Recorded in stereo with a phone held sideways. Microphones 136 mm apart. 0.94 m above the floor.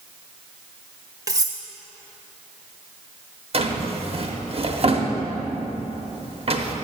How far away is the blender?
No blender in this recording.